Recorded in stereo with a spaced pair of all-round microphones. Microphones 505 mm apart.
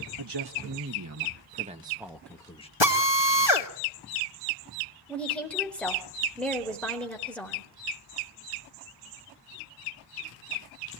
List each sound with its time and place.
0.2 s a man speaking: 55° right (ahead or behind), 1.7 m; by 2.7 s 10° left (ahead or behind), 1.8 m
2.8 s a drill: 55° left (ahead or behind), 2.0 m
5.1 s a woman speaking: centre (ahead or behind), 4 m